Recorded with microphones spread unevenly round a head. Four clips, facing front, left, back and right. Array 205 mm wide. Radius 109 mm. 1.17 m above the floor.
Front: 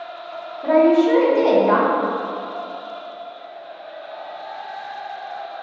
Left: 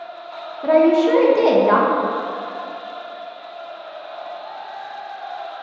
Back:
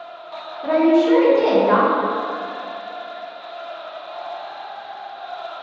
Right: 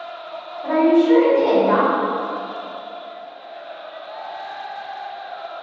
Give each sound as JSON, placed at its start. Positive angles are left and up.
{"t": 0.6, "sound": "a woman speaking", "azimuth_deg": 90, "distance_m": 1.1}